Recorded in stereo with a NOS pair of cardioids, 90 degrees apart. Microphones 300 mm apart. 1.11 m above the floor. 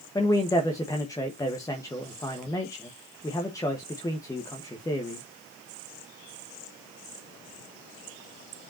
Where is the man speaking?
10° left, 1.2 m.